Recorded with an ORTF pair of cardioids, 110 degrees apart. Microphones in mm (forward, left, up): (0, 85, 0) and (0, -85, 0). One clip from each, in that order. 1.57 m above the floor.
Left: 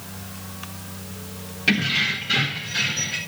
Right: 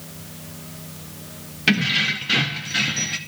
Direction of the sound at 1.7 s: 40° right.